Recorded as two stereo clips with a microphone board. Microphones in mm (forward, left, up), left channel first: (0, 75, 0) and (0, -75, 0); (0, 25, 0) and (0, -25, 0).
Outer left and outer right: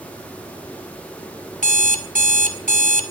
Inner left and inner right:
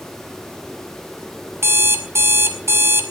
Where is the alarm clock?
60° right (ahead or behind), 2.5 m.